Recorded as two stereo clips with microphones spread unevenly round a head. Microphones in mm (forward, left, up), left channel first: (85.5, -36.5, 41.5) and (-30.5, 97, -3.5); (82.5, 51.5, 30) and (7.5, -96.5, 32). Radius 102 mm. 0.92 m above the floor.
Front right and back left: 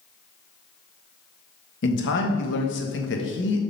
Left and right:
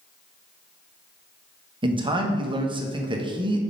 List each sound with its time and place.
1.8 s a man speaking: 60° right, 1.1 m